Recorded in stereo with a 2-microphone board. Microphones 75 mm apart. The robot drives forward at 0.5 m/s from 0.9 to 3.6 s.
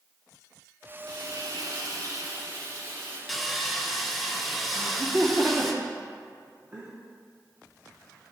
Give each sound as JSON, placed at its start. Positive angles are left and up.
{"t": 1.1, "sound": "frying", "side_deg": -65, "distance_m": 1.7}
{"t": 3.3, "sound": "sawing", "side_deg": 0, "distance_m": 0.6}
{"t": 4.7, "sound": "laughter", "side_deg": -20, "distance_m": 0.7}